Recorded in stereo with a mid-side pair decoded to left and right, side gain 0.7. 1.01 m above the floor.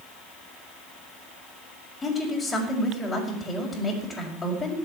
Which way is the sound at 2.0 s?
15° left.